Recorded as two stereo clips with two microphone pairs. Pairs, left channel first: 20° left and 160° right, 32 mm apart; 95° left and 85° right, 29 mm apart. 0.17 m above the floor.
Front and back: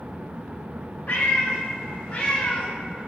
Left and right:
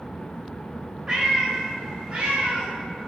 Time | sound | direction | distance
1.1 | a cat meowing | 20° right | 2 m